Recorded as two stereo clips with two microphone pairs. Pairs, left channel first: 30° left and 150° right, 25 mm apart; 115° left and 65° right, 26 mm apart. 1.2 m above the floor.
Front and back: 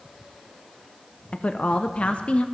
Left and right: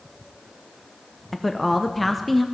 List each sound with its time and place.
1.3 s a woman speaking: 35° left, 0.7 m